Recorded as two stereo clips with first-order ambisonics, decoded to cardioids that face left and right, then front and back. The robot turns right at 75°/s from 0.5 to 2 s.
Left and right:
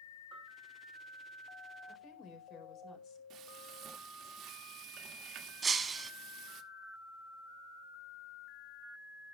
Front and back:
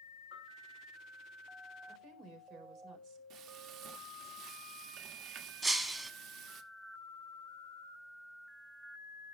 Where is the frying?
140° right, 1.5 m.